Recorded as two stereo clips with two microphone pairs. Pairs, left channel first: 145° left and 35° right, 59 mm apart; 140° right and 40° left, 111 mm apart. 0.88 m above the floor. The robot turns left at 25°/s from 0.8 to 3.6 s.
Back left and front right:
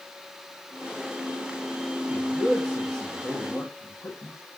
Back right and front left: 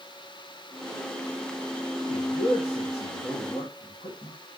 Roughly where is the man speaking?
Behind right.